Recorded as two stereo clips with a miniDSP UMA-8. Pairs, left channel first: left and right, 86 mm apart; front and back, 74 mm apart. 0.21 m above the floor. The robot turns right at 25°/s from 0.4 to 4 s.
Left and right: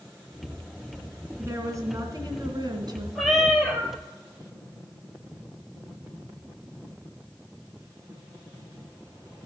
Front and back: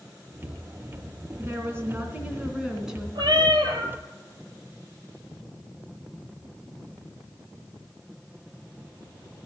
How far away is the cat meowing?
About 1.7 m.